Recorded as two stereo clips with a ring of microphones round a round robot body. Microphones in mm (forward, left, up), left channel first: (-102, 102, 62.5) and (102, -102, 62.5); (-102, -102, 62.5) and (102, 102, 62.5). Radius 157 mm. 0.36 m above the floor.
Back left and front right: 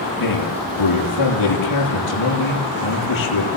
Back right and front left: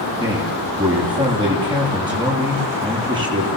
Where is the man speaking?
120° left, 9.5 m.